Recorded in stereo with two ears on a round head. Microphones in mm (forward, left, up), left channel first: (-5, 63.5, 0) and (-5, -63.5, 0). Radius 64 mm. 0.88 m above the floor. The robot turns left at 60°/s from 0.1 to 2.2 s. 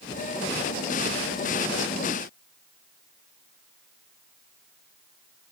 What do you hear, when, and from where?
Only background noise.